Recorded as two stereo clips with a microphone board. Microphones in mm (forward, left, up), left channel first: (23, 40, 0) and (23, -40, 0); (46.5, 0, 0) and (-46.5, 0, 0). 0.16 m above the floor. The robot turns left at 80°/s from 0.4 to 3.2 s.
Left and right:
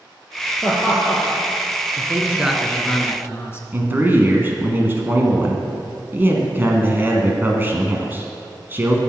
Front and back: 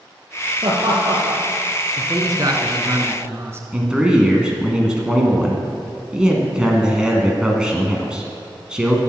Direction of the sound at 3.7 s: 110° right.